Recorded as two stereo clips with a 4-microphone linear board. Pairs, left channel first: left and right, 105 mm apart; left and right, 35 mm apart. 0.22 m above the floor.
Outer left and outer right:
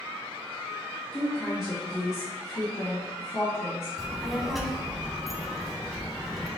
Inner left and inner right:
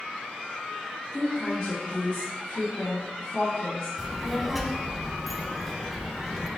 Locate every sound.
1.1 s a woman speaking: 45° left (ahead or behind), 1.7 m
4.0 s a child speaking: centre (ahead or behind), 0.9 m